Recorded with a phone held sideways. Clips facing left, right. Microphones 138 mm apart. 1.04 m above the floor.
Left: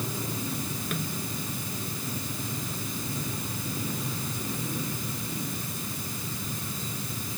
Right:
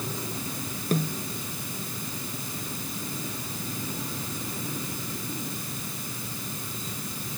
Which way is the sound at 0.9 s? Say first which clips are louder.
Right 9 dB; 35° right (ahead or behind).